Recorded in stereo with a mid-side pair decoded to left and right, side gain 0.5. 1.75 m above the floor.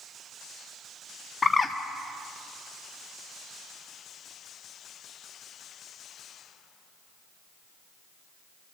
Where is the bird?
30° left, 1.5 m.